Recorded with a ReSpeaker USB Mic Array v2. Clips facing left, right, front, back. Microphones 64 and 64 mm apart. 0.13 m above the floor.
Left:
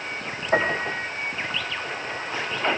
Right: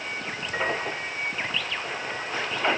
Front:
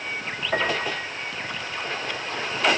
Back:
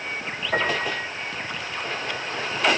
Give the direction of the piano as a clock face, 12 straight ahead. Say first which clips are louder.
Left 6 dB, back 1 dB; 9 o'clock.